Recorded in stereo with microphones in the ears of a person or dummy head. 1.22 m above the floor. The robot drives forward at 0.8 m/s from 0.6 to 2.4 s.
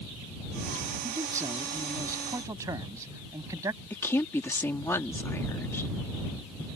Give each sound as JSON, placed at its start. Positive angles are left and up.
{"t": 1.0, "sound": "a man speaking", "side_deg": -15}
{"t": 3.9, "sound": "a woman speaking", "side_deg": 15}